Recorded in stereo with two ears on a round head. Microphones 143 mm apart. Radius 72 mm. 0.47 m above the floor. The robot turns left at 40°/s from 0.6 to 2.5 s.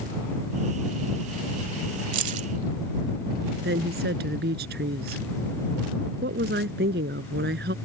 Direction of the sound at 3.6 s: 70° right (ahead or behind).